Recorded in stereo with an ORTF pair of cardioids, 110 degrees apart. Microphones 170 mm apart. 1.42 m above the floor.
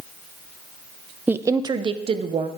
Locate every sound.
1.3 s a woman speaking: 10° right, 0.7 m; by 2.5 s 40° right, 1.4 m